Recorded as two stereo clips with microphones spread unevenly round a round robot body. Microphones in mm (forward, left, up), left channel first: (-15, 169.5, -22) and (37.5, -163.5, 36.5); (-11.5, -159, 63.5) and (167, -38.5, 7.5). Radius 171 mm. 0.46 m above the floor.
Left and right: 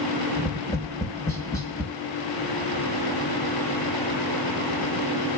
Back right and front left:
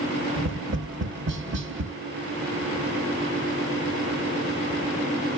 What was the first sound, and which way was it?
Tapping, 20° left.